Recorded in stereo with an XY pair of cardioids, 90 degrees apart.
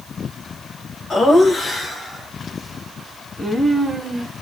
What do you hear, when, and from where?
1.1 s laughter: 50° left, 1.4 m; by 4.3 s 5° right, 2 m